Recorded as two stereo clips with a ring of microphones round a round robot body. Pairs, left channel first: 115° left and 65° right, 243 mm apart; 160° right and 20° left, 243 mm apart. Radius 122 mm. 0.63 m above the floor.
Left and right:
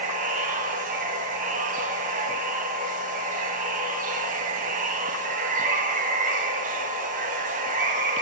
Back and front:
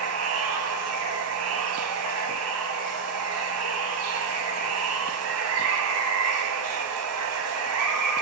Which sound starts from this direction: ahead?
Running water, at 0.0 s.